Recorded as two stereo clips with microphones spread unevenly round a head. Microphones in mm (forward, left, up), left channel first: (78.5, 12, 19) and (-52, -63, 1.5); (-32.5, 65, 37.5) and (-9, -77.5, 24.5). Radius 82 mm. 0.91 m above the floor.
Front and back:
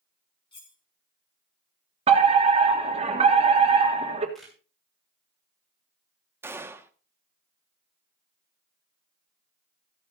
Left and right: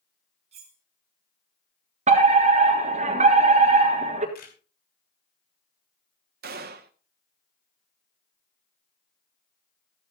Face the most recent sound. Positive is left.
turn(degrees=-75)